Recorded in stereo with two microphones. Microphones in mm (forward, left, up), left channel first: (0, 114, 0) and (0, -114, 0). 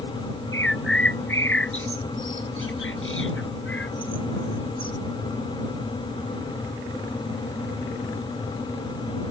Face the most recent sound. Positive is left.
turn(degrees=65)  # may be behind; listen again after turning